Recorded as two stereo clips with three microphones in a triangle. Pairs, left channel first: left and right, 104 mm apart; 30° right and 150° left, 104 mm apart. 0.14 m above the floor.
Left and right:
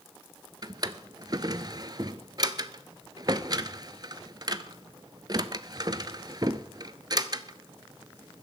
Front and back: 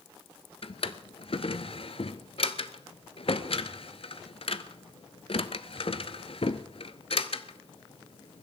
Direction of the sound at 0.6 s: 45° right.